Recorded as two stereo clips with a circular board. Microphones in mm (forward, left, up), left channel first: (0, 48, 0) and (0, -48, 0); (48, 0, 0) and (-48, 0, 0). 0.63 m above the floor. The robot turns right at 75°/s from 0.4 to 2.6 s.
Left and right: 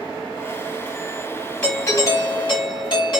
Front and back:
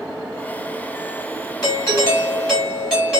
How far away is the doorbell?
About 2 m.